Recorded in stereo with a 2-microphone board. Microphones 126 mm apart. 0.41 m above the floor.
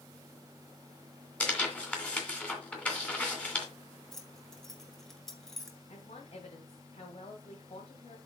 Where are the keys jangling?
5° left (ahead or behind), 1.4 m.